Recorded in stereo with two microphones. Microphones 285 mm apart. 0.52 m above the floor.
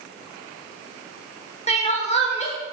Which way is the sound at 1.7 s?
20° left (ahead or behind).